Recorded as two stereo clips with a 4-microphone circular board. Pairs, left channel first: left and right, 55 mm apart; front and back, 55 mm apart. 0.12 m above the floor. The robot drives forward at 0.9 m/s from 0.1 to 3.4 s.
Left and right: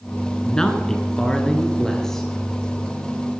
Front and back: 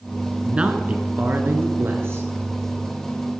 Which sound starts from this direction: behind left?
A man speaking, at 0.4 s.